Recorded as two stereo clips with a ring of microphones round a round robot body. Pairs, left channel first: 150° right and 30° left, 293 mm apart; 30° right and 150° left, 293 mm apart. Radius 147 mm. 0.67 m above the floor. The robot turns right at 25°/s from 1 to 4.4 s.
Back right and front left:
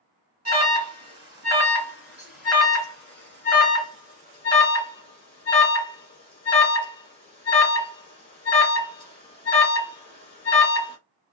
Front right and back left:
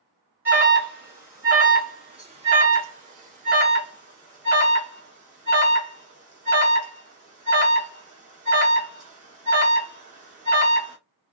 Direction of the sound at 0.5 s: 75° left.